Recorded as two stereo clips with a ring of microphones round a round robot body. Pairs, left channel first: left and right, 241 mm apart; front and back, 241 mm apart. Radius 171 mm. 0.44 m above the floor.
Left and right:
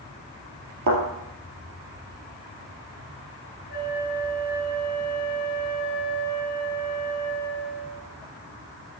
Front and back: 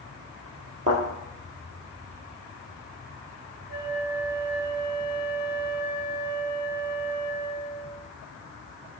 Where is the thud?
110° right, 2.5 m.